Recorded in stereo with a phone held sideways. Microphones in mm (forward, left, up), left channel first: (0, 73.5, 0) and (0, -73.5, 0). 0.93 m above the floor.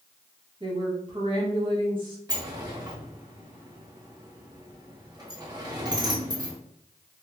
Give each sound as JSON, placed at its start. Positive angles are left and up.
{"t": 0.6, "sound": "a woman speaking", "side_deg": -35, "distance_m": 1.3}
{"t": 2.3, "sound": "a sliding door", "side_deg": -25, "distance_m": 1.0}